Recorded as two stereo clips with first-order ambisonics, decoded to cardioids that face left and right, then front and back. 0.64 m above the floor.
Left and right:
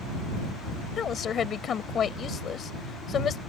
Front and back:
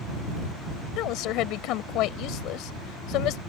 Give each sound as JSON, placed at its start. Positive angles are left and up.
{"t": 1.0, "sound": "a woman speaking", "azimuth_deg": 30}